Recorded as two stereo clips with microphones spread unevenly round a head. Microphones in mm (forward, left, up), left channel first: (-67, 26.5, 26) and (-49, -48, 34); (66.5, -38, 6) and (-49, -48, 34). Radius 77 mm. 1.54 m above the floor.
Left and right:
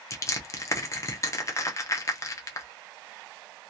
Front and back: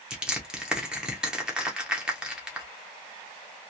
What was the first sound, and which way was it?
Crushing, 130° left.